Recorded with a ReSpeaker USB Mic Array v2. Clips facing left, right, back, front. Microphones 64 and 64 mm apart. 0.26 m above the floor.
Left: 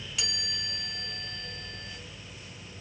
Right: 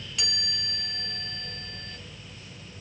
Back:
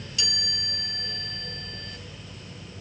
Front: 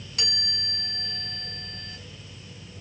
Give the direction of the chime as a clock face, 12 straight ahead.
12 o'clock.